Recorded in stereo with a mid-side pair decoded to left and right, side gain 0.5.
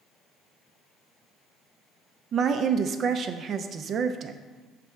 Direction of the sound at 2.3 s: 50° right.